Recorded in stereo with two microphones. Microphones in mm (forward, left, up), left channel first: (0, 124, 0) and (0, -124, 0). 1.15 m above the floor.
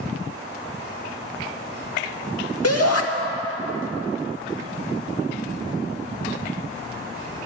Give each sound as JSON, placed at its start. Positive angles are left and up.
{"t": 2.6, "sound": "a shout", "side_deg": 75, "distance_m": 1.7}